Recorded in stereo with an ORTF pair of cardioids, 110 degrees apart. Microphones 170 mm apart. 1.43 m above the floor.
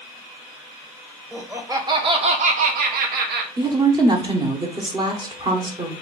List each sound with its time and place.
1.3 s laughter: 10° right, 1.3 m; by 3.5 s 80° right, 1.2 m
3.6 s a woman speaking: 25° right, 1.1 m